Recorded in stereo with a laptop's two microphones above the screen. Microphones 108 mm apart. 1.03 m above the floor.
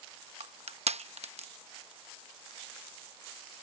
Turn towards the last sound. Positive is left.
turn(degrees=-85)